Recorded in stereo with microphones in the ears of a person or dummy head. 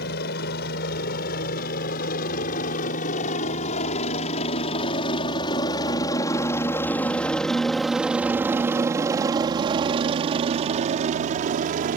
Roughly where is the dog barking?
I don't hear a dog barking.